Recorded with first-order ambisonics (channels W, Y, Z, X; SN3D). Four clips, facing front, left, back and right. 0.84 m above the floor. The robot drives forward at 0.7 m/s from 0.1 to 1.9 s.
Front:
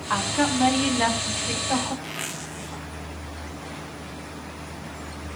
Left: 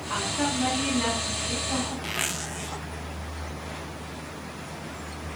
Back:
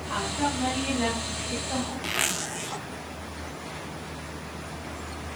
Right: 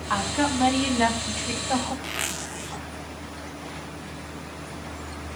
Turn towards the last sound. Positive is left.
turn(degrees=175)